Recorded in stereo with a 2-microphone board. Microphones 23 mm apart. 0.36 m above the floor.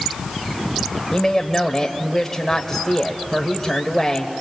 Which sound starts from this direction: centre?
A woman speaking, at 1.1 s.